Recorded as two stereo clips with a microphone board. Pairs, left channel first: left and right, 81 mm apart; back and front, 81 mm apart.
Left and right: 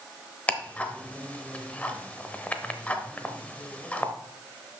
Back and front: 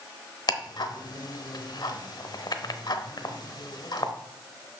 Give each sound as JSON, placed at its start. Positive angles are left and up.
{"t": 0.5, "sound": "ticking", "azimuth_deg": 160, "distance_m": 0.8}